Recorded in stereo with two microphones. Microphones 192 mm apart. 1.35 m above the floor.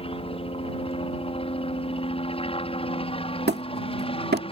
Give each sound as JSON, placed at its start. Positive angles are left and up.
{"t": 0.0, "sound": "a helicopter", "side_deg": 30}
{"t": 3.5, "sound": "hammering", "side_deg": -60}